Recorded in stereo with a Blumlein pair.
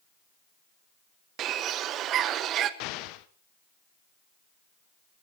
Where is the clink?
I don't hear a clink.